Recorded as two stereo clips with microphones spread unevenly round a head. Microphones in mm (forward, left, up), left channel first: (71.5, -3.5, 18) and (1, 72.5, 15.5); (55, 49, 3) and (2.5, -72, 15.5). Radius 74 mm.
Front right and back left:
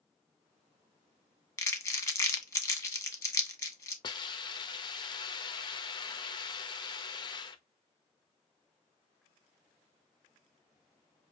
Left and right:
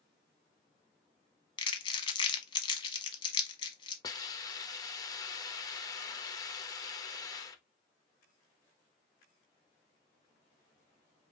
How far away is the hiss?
About 0.7 m.